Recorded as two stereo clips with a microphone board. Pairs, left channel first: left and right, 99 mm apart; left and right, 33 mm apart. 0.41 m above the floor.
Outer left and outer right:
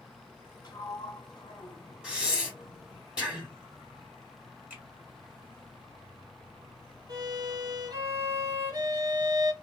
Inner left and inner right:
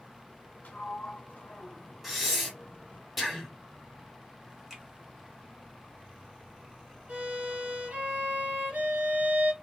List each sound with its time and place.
0.6 s a sliding door: 40° left (ahead or behind), 1.1 m
2.0 s breathing: 10° right (ahead or behind), 1.3 m
4.7 s a finger snap: 15° right (ahead or behind), 1.3 m
7.1 s a violin: 45° right (ahead or behind), 0.8 m